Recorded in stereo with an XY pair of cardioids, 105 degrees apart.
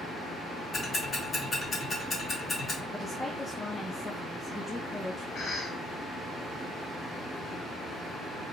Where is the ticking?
25° left, 1.9 m.